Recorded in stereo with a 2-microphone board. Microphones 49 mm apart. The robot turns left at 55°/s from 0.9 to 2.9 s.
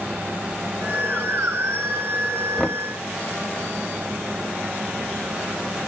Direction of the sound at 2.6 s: 5° left (ahead or behind).